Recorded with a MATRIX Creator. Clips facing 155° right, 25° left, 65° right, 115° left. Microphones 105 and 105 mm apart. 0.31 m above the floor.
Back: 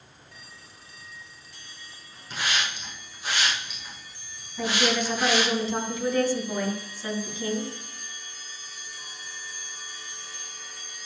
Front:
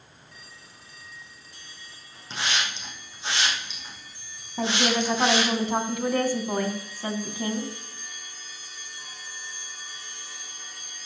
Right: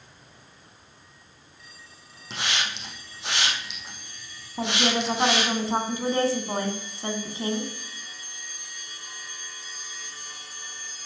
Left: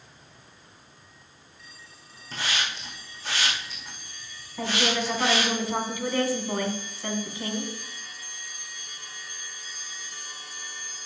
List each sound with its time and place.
2.3 s a hiss: 45° right, 5 m
4.6 s a woman speaking: 10° right, 2.5 m